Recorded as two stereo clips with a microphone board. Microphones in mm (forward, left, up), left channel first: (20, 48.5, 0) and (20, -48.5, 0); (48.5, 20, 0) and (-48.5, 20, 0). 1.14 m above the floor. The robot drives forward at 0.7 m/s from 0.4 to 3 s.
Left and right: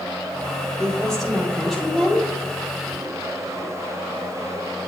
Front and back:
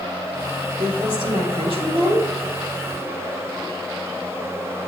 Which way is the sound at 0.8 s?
175° left.